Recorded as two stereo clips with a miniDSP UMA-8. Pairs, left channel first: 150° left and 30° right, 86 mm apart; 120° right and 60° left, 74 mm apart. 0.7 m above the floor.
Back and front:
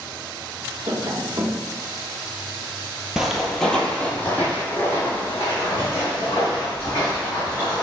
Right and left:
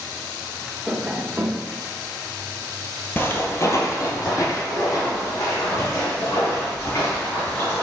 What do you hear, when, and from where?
0.9 s tapping: 15° right, 0.8 m
3.2 s footsteps: 105° right, 0.7 m; by 7.8 s 155° right, 3 m